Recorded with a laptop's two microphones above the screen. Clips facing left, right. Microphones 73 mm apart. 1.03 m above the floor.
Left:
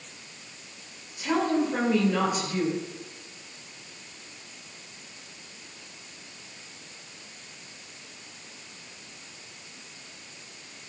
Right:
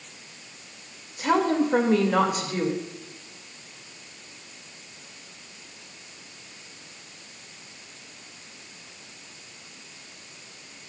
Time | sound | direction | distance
1.2 | a woman speaking | 65° right (ahead or behind) | 1.9 m